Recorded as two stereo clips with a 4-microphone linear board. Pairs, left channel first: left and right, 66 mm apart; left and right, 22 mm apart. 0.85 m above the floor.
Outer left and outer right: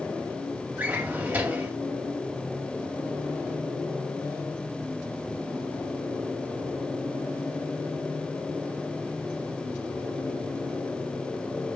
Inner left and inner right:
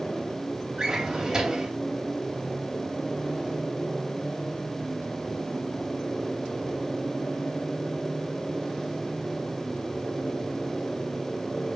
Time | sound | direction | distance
0.8 | a drawer | 25° right (ahead or behind) | 2.5 m